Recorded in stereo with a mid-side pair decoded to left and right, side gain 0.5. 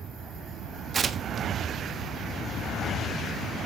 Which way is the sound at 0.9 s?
40° right.